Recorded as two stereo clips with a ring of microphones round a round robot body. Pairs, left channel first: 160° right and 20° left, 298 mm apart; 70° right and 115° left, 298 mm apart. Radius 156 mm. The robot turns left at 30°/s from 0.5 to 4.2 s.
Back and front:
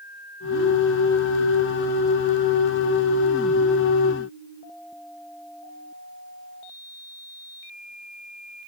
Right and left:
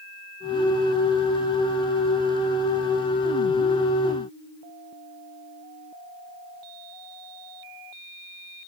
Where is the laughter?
I don't hear laughter.